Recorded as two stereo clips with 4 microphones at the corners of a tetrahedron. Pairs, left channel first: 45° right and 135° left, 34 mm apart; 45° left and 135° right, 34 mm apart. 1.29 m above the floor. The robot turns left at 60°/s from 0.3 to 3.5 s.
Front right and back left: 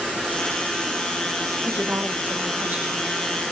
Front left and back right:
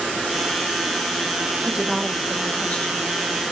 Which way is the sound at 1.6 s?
170° left.